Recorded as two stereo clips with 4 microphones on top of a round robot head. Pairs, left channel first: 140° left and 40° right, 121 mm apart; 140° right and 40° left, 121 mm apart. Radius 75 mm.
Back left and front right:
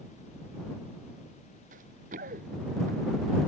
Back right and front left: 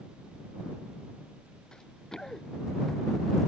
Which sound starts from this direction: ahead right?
Running footsteps, at 1.7 s.